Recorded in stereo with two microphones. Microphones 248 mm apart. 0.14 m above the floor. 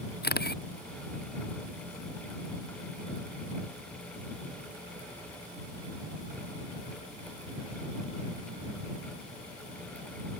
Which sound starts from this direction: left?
A camera shutter, at 0.2 s.